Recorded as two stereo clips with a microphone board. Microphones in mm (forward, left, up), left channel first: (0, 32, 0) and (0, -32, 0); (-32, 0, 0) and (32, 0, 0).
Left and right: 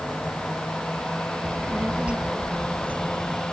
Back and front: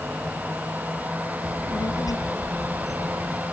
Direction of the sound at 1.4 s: 165° right.